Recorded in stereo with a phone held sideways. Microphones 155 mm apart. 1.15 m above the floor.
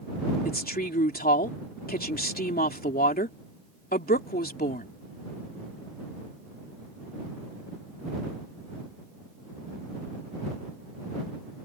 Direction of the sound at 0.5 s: 75° left (ahead or behind).